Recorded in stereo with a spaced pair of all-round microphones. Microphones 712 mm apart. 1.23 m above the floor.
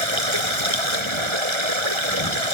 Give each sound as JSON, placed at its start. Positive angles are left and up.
{"t": 0.0, "sound": "running water", "side_deg": -40}